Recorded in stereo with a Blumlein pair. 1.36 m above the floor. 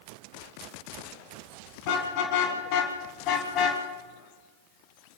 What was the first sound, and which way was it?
A car horn, 45° left.